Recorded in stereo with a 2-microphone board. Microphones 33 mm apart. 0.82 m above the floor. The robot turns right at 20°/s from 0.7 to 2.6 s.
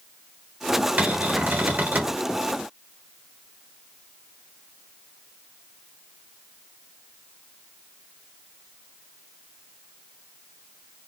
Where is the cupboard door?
60° right (ahead or behind), 1.0 m; by 2.2 s 70° right (ahead or behind), 1.0 m.